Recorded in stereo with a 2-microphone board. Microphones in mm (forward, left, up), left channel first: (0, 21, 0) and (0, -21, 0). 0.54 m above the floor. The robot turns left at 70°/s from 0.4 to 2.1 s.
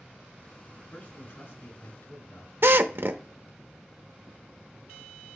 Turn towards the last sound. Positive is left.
turn(degrees=-60)  # may be behind; listen again after turning